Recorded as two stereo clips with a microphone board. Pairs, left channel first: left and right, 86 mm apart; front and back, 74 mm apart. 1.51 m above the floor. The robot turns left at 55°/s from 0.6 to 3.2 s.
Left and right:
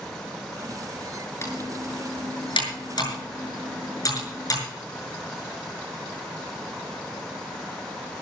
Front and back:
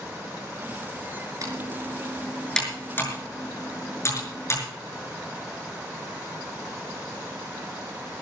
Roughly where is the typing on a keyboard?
Behind left.